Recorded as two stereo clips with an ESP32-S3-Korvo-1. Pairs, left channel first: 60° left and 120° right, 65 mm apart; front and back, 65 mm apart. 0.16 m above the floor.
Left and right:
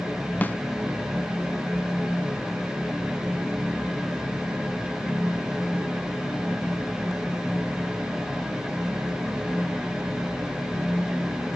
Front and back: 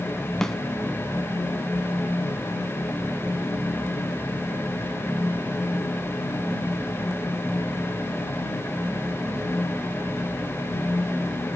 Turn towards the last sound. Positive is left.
turn(degrees=75)